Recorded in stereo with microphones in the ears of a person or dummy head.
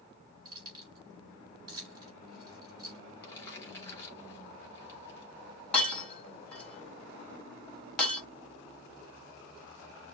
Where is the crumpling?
15° left (ahead or behind), 3.5 m.